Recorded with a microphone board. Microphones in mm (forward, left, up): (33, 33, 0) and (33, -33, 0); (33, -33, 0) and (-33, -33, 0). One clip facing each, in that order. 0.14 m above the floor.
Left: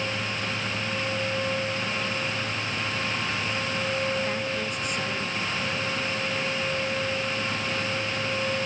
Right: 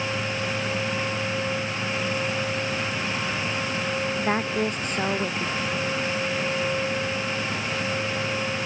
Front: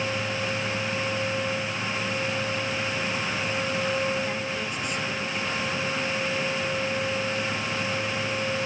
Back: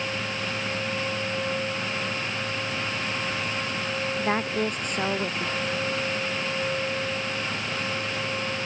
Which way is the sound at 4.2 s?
135° right.